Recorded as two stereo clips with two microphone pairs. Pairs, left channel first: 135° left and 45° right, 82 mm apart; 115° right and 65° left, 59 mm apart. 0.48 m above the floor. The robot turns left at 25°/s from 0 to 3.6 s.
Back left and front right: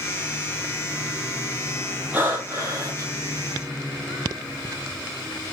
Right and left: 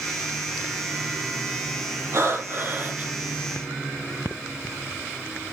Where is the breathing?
20° left, 4.5 m; by 3.1 s 5° right, 4.5 m.